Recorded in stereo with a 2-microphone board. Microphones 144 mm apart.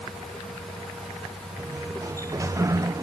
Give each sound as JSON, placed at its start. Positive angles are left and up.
{"t": 1.6, "sound": "a sliding door", "side_deg": -20}